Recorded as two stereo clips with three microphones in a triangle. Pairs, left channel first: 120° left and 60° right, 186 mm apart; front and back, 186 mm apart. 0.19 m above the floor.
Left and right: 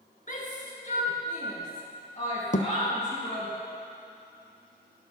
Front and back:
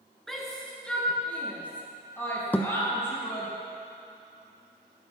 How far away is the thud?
About 0.7 m.